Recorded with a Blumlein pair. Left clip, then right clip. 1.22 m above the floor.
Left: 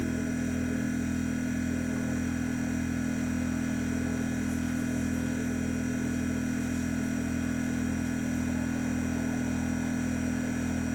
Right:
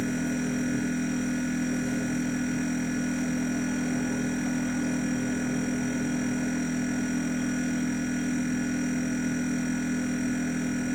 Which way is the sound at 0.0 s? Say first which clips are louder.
Right 2 dB; 60° right.